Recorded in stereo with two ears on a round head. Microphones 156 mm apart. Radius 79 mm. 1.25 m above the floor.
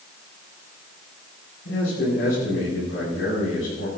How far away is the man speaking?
About 9.5 m.